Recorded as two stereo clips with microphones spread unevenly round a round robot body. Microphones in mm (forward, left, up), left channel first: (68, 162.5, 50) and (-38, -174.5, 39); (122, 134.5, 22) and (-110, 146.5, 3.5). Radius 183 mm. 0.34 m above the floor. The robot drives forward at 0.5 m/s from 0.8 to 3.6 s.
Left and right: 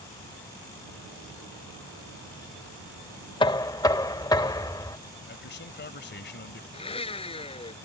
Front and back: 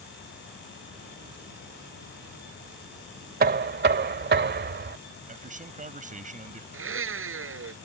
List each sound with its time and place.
3.4 s knocking: 145° left; by 5.0 s 150° left
5.3 s a man speaking: 130° left
6.7 s a blender: 150° left